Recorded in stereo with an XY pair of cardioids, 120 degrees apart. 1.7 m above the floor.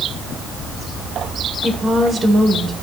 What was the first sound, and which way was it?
A woman speaking, 25° right.